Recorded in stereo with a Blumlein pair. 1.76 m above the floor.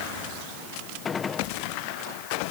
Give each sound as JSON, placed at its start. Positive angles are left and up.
{"t": 1.1, "sound": "a gunshot", "azimuth_deg": 20}